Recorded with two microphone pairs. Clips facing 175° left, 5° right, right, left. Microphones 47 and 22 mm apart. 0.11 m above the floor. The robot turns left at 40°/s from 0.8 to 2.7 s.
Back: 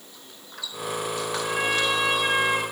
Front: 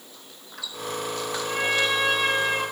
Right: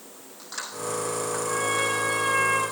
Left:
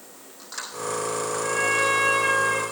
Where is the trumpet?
120° left, 8 m; by 2.6 s 70° left, 8 m.